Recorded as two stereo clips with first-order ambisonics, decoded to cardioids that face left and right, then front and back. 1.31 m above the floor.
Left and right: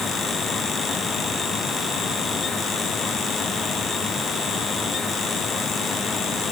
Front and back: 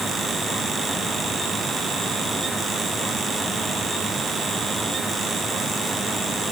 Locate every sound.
Only background noise.